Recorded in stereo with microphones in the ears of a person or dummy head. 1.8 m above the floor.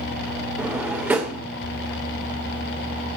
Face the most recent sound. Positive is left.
turn(degrees=-10)  # may be behind; listen again after turning